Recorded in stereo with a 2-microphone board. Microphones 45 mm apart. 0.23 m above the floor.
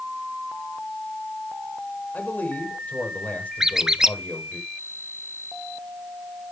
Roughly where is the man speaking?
Left.